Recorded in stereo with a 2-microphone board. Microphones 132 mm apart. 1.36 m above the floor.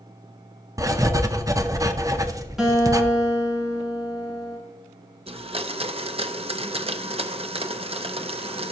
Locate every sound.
0.8 s writing: 25° right (ahead or behind), 0.6 m
2.6 s a guitar: 5° right (ahead or behind), 4 m
5.3 s a blender: 45° right (ahead or behind), 0.6 m